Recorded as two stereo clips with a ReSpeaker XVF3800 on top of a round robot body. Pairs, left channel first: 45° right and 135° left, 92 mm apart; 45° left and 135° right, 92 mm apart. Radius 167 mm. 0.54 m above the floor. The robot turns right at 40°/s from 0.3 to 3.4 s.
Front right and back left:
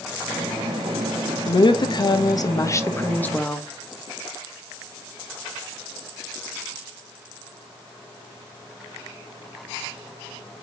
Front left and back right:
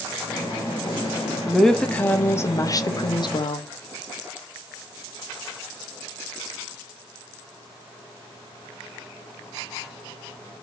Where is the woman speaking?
45° right, 1.1 m; by 3.7 s 30° left, 1.1 m.